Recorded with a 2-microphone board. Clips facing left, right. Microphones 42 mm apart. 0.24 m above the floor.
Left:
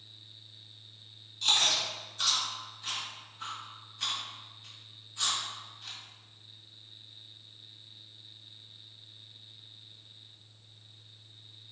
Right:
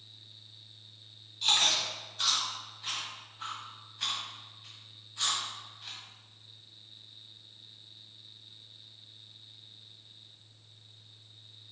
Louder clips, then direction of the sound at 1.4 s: Even; 5° right (ahead or behind).